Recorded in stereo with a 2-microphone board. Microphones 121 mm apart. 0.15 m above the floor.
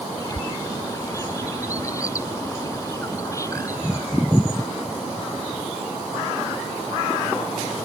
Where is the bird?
25° left (ahead or behind).